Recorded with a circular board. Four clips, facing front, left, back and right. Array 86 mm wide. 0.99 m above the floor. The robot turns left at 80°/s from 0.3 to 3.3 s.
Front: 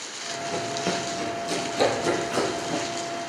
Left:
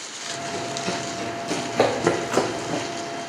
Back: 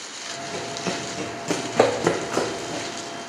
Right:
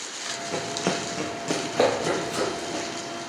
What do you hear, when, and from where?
0.5 s running footsteps: 55° right, 2.5 m; by 2.8 s 60° left, 1.9 m